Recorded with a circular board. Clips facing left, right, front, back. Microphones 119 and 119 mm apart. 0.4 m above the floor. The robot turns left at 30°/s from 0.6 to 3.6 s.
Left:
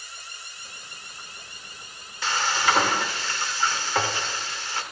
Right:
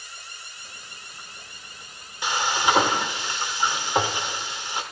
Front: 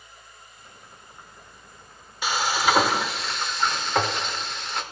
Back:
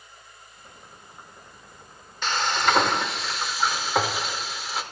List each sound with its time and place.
2.2 s frying: 65° right, 0.9 m; by 4.8 s 105° right, 0.9 m